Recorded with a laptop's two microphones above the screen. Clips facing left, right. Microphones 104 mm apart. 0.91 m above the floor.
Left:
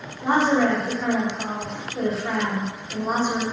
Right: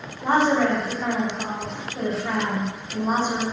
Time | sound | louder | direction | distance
0.2 | a woman speaking | even | 5° left (ahead or behind) | 1.2 m